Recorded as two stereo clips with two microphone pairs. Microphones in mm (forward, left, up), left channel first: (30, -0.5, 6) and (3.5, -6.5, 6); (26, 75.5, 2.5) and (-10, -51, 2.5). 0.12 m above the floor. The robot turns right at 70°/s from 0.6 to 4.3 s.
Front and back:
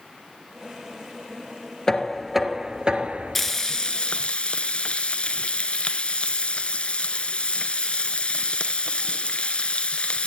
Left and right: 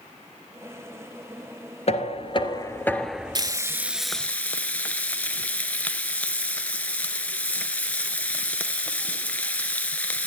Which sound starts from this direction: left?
Knocking, at 1.9 s.